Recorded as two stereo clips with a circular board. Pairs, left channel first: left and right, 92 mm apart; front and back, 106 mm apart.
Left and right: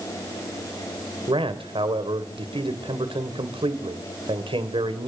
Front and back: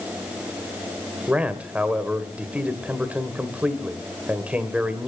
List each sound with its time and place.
1.3 s a man speaking: 100° right, 2 m